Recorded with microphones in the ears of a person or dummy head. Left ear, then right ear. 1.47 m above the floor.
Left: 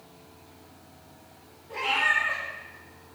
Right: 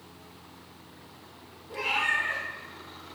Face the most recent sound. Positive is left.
turn(degrees=50)  # may be behind; listen again after turning